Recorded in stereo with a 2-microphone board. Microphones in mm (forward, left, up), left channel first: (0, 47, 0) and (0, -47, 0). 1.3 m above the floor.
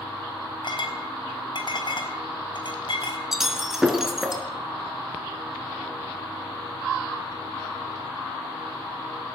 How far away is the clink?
About 4.5 m.